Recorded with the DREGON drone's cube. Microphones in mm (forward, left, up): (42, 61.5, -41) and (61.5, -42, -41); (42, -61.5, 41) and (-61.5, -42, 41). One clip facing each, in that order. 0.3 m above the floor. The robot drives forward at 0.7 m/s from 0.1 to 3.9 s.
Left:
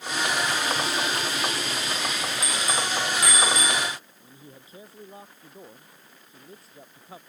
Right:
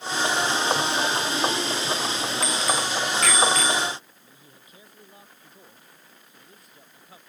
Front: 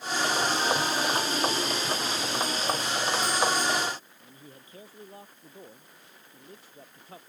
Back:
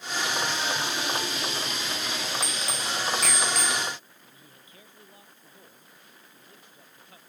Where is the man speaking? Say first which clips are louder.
Left 5 dB, front 4 dB; 40° left.